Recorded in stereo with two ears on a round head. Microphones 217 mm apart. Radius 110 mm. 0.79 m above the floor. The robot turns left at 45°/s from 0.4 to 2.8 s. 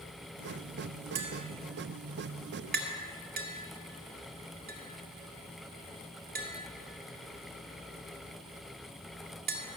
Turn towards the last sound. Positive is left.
turn(degrees=-40)  # may be behind; listen again after turning